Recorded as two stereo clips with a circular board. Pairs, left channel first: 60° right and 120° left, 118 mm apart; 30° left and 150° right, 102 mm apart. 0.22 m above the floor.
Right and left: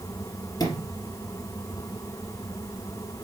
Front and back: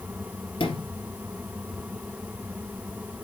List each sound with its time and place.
0.6 s a sliding door: 5° right, 3 m